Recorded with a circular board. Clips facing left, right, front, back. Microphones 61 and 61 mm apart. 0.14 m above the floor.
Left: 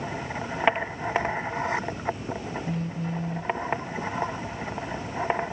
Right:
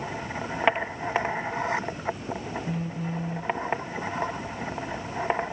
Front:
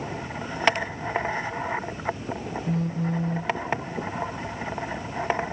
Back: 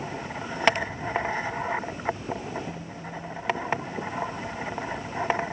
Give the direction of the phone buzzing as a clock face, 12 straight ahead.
12 o'clock.